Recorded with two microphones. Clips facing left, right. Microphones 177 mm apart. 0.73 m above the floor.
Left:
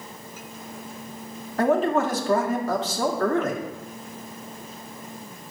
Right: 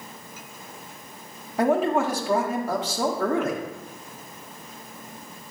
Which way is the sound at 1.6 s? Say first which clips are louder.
Even; 10° right (ahead or behind).